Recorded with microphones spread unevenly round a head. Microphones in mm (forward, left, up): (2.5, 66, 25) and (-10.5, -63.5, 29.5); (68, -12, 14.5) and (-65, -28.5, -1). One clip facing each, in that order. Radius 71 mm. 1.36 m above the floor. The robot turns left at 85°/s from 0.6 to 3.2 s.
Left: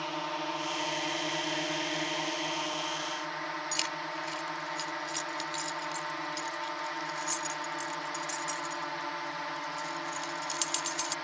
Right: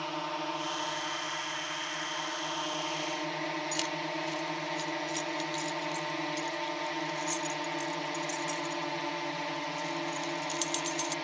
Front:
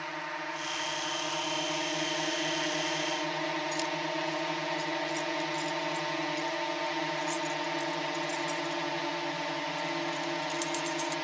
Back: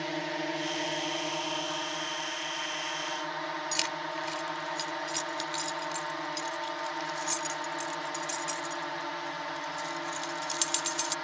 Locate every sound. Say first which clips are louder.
0.0 s a drone: even, back 5 dB; 175° left; by 11.2 s 45° right
3.7 s keys jangling: right 3 dB, front 3 dB; 165° left